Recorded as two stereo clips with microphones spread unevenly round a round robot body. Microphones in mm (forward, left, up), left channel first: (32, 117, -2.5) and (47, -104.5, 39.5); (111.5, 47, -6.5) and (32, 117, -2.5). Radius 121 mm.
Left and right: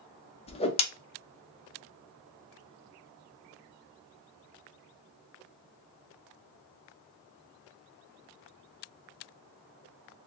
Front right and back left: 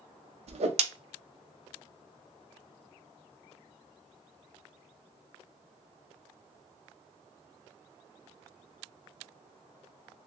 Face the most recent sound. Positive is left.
turn(degrees=145)